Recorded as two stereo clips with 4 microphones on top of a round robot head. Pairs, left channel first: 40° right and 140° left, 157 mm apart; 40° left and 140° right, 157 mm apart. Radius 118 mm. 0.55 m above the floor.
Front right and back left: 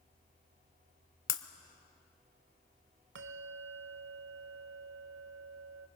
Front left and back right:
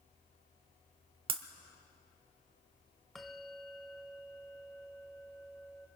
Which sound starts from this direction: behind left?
A bell, at 3.1 s.